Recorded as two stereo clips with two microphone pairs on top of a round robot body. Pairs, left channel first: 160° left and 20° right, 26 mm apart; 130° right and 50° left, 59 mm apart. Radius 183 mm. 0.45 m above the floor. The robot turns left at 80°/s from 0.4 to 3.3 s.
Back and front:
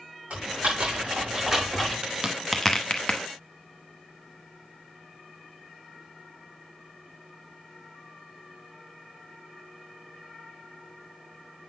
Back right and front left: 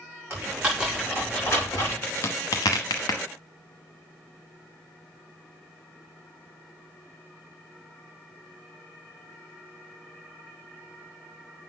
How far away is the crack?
About 0.9 m.